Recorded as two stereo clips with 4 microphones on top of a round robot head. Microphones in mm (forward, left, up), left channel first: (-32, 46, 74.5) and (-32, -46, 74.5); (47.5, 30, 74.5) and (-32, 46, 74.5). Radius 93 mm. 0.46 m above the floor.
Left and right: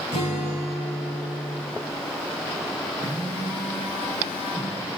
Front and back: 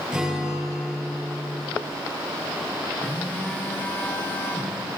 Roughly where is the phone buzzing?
Ahead left.